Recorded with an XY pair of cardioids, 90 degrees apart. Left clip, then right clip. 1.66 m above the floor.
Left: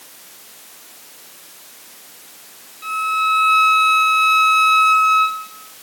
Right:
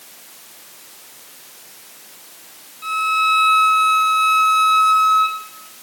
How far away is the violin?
About 1.6 m.